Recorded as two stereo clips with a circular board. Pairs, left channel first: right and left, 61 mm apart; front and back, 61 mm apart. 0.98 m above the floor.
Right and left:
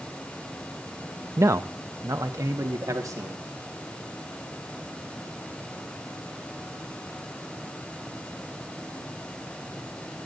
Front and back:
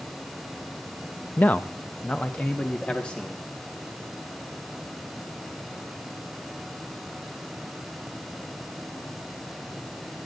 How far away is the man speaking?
About 0.5 m.